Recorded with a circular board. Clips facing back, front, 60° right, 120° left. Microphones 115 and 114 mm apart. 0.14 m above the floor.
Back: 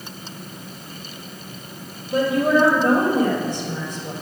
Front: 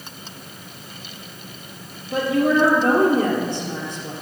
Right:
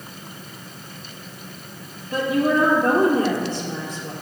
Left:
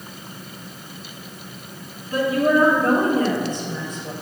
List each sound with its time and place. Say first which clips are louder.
2.1 s a woman speaking: back 1 dB, left 1 dB; 5° right, 3 m